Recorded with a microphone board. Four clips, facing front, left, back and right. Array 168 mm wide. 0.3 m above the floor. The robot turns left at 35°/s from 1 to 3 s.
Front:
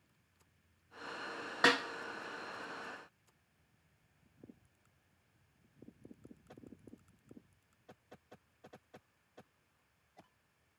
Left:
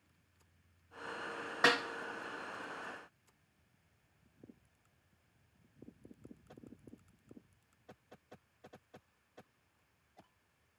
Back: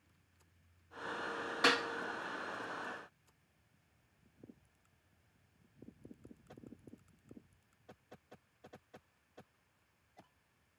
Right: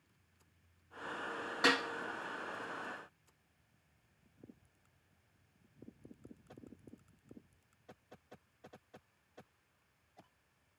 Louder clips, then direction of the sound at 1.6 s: Left 1 dB, front 2 dB; 20° left.